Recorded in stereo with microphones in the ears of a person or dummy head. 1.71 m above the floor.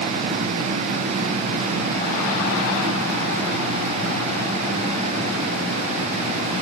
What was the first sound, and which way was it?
Only background noise.